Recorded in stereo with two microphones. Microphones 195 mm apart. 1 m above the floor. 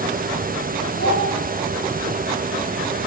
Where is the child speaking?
85° left, 3 m.